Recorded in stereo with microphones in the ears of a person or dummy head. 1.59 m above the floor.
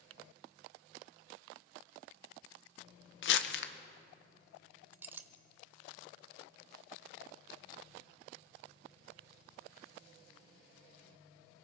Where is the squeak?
I don't hear a squeak.